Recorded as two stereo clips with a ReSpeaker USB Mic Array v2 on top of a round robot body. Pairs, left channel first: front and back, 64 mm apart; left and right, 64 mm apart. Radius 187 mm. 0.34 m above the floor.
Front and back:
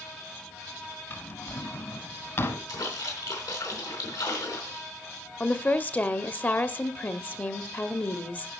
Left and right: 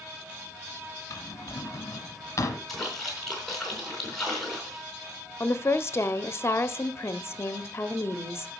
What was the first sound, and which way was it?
A drawer, 50° left.